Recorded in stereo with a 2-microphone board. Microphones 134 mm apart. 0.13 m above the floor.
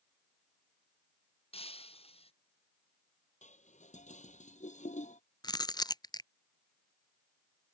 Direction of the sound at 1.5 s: 50° left (ahead or behind).